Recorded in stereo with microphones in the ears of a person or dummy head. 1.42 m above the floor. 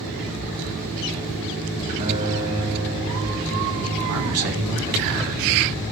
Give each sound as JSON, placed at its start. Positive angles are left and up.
{"t": 2.0, "sound": "a guitar", "side_deg": -35, "distance_m": 4.0}
{"t": 4.1, "sound": "a man speaking", "side_deg": -70, "distance_m": 1.0}